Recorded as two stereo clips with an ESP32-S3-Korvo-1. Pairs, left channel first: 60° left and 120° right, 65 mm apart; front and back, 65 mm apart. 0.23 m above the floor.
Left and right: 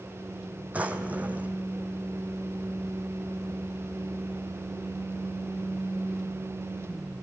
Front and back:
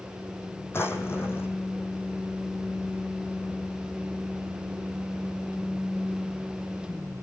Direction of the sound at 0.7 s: 50° right.